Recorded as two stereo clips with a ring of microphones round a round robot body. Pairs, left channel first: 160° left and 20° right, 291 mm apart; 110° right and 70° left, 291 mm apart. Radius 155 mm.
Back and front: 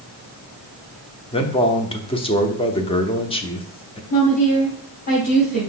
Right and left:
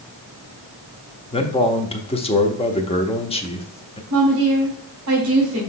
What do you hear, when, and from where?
1.3 s a man speaking: 155° right, 0.9 m
4.1 s a woman speaking: 105° left, 2.5 m